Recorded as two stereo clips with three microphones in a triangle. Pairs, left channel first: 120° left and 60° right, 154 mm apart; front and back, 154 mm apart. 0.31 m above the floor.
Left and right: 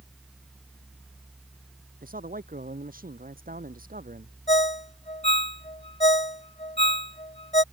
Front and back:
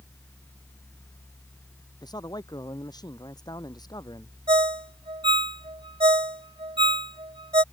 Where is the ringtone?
145° left.